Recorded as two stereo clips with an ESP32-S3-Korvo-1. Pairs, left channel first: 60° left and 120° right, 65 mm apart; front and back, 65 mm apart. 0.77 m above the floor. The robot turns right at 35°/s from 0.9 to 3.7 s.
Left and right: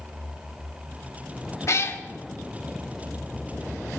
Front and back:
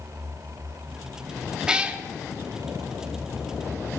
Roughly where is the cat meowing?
Left.